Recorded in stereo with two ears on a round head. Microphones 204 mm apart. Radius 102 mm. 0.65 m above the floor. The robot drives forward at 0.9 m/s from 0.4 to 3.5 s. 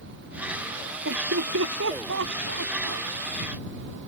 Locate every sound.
1.1 s laughter: 55° right (ahead or behind); by 3.1 s 60° right (ahead or behind)